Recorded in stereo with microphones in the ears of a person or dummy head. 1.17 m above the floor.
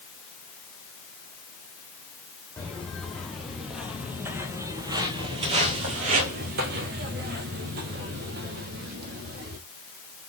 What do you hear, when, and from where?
2.6 s footsteps: 5° left (ahead or behind), 2.5 m; by 9.6 s 50° right (ahead or behind), 3 m